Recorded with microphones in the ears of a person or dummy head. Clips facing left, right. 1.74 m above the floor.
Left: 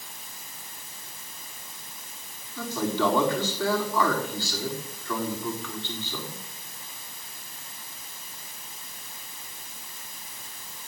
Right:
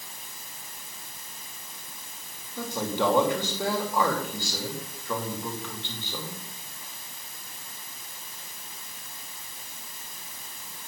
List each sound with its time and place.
2.6 s a man speaking: 15° right (ahead or behind), 4.5 m